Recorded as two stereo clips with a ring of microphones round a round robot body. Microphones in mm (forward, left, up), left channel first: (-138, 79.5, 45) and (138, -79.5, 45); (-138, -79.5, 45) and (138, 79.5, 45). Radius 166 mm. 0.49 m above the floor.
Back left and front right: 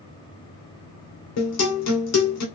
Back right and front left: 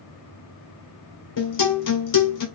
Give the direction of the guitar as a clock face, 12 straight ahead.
6 o'clock.